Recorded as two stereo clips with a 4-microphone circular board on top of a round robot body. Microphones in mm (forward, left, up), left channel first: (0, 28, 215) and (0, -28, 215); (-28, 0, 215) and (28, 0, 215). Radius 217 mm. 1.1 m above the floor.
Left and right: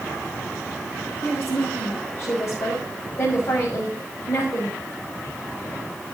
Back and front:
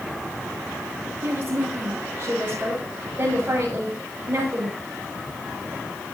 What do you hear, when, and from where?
1.2 s a woman speaking: 55° left, 6.5 m